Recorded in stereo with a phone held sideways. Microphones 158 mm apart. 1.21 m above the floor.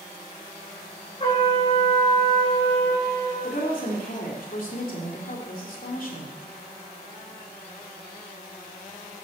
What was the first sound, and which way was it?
A trumpet, 35° left (ahead or behind).